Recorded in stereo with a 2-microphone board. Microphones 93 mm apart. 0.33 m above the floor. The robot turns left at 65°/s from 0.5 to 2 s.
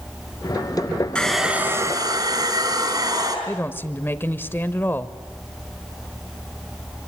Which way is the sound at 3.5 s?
25° left (ahead or behind).